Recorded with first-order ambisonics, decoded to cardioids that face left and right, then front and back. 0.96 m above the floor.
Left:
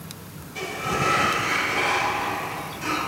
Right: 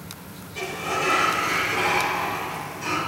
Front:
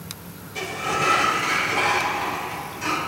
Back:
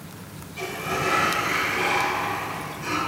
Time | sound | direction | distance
0.6 | a sliding door | 15° left | 1.4 m